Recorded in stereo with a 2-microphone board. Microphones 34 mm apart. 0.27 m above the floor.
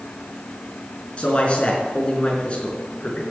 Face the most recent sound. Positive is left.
turn(degrees=30)  # may be behind; listen again after turning